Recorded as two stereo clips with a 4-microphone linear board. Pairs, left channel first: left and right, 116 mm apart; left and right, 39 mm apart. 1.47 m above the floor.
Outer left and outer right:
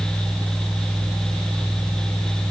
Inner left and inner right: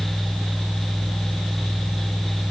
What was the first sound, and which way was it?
Only background noise.